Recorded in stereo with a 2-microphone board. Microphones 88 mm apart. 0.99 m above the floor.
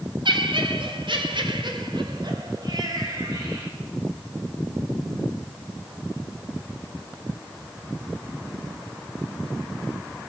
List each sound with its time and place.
0.2 s laughter: 75° right (ahead or behind), 3 m; by 3.7 s 45° right (ahead or behind), 5.5 m